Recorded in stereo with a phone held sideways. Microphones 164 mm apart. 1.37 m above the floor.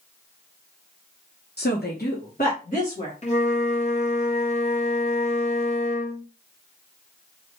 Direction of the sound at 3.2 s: 45° left (ahead or behind).